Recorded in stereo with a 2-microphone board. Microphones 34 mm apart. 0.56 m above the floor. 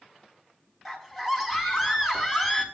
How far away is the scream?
About 4.5 m.